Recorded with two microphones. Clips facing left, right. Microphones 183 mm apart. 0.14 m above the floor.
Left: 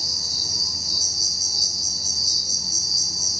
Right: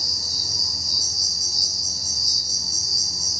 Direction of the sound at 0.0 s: 5° left (ahead or behind).